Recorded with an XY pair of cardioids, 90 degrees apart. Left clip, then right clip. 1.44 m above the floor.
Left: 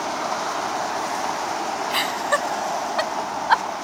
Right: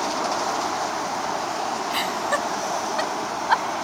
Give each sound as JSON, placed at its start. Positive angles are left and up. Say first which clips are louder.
{"t": 1.9, "sound": "laughter", "louder": "left 3 dB", "azimuth_deg": 30}